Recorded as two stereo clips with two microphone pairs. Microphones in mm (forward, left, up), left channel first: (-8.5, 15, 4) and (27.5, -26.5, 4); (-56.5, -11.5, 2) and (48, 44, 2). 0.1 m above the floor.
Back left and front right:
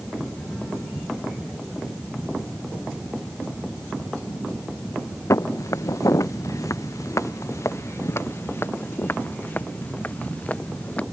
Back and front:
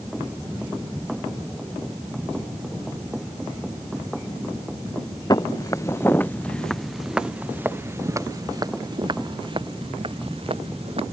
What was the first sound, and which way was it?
Footsteps, 155° left.